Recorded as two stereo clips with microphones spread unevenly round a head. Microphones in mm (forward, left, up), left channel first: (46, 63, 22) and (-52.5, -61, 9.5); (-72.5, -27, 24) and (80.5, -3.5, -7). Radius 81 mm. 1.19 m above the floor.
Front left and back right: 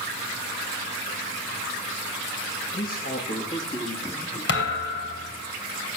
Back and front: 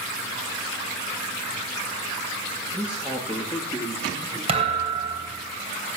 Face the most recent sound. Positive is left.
turn(degrees=70)